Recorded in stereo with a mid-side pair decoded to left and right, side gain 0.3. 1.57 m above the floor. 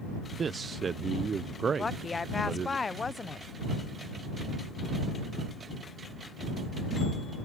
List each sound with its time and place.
0.4 s a man speaking: 60° right
1.8 s a woman speaking: 45° left